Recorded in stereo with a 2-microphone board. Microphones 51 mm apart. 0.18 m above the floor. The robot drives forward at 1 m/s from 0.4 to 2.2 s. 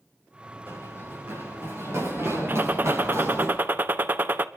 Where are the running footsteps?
60° right (ahead or behind), 8 m; by 3.5 s 65° right (ahead or behind), 9.5 m.